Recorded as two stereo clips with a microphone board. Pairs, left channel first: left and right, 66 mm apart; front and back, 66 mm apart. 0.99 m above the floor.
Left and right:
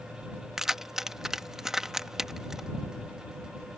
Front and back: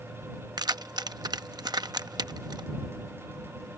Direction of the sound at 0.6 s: 175° right.